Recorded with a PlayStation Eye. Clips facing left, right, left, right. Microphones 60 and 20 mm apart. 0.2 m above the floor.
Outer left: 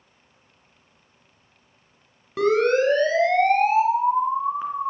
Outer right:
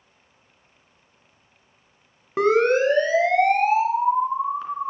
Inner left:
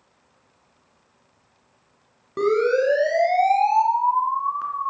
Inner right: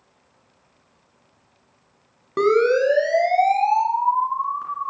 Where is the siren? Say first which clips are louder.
Outer right 1 dB, inner right 2 dB; 30° right (ahead or behind), 2 m; by 4.9 s 15° left (ahead or behind), 3 m.